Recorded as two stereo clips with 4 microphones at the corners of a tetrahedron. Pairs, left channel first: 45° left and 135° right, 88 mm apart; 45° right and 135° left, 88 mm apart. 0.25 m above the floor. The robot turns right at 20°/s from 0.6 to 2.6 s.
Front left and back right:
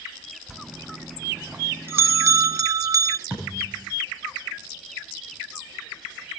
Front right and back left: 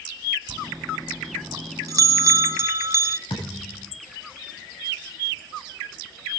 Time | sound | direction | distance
0.5 | a bell | 145° left | 0.5 m
3.3 | a thud | 70° right | 9.5 m